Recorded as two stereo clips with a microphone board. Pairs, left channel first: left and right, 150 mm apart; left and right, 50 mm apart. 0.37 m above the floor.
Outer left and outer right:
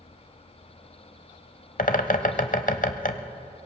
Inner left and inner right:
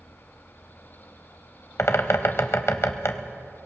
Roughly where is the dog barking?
I don't hear a dog barking.